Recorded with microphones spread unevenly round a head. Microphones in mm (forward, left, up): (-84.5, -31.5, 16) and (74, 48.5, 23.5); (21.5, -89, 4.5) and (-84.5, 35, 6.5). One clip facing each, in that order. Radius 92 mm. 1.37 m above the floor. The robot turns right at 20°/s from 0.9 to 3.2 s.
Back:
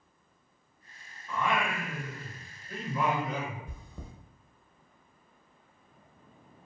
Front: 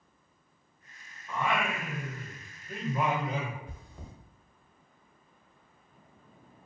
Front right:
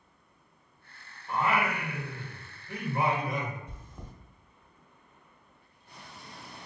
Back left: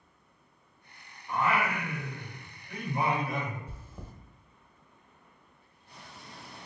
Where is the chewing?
150° right, 0.8 m.